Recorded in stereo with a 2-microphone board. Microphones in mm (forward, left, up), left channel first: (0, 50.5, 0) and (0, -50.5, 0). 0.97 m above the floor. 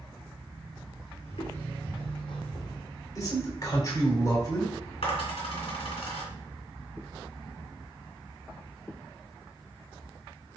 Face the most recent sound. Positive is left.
turn(degrees=75)  # may be behind; listen again after turning